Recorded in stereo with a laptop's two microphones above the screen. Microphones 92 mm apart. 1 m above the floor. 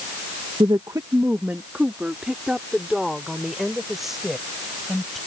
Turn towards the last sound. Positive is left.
turn(degrees=0)  # may be behind; listen again after turning